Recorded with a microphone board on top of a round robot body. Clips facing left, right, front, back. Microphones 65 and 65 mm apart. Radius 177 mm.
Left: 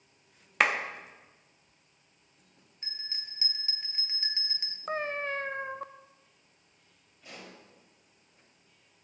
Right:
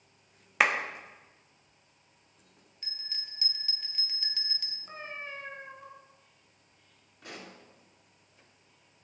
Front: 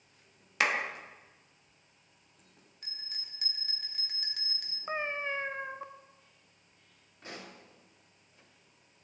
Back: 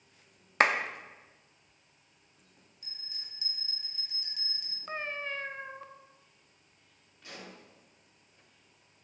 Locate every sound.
0.6 s a clap: 175° right, 1.3 m
2.8 s a bell: 25° left, 1.3 m
4.9 s a cat meowing: 70° left, 0.6 m
7.2 s a pop: 60° right, 3 m